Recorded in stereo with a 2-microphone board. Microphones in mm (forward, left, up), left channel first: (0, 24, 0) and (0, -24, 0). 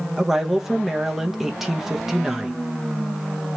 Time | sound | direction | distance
0.2 | a woman speaking | 10° right (ahead or behind) | 0.7 m